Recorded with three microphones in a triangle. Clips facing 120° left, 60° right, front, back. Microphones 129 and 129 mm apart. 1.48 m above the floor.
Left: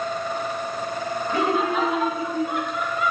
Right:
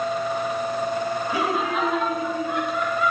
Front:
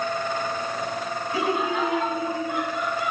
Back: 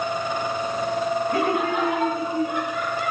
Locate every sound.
1.3 s laughter: 145° right, 2 m; by 3.1 s 165° right, 4 m